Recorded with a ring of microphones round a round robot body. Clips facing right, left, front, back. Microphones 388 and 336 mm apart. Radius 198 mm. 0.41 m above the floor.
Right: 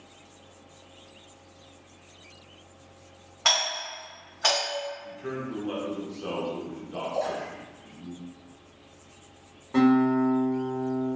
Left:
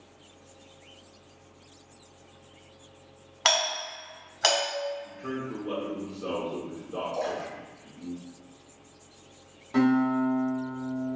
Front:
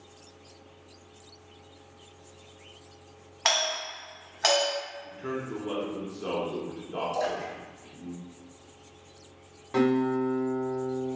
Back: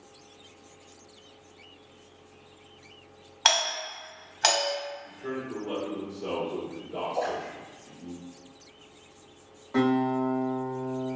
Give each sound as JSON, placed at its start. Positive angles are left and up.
{"t": 3.5, "sound": "a doorbell", "azimuth_deg": 140, "distance_m": 1.3}
{"t": 5.0, "sound": "a man speaking", "azimuth_deg": -30, "distance_m": 0.8}
{"t": 7.1, "sound": "a splash", "azimuth_deg": 10, "distance_m": 1.5}
{"t": 9.7, "sound": "a guitar", "azimuth_deg": 5, "distance_m": 1.1}